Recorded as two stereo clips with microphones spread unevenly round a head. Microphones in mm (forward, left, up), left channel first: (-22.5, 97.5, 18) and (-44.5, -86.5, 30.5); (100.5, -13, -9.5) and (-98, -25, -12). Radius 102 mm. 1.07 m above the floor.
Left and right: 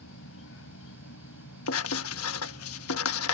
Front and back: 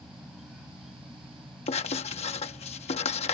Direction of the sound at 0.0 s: 95° left.